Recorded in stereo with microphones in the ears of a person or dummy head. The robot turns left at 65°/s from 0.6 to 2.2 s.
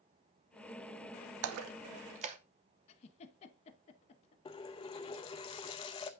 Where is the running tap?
20° left (ahead or behind), 0.6 m.